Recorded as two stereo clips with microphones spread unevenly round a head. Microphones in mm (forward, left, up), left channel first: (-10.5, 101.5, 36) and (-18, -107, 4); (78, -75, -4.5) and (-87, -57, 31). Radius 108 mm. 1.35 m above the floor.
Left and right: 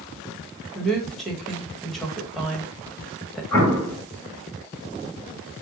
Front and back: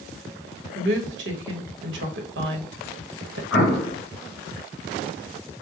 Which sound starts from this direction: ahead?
An explosion, at 3.5 s.